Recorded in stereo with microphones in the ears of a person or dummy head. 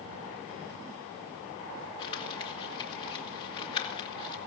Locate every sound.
2.0 s crumpling: 25° left (ahead or behind), 2 m